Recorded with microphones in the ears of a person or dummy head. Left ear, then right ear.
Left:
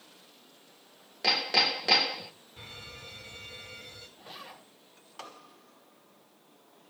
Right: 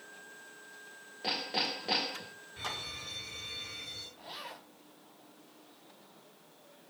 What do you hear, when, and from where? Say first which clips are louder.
1.2 s hammering: left 8 dB; 35° left (ahead or behind), 0.7 m
2.6 s an alarm: right 7 dB; 20° right (ahead or behind), 5 m
4.2 s a zipper: right 1 dB; 25° right (ahead or behind), 5.5 m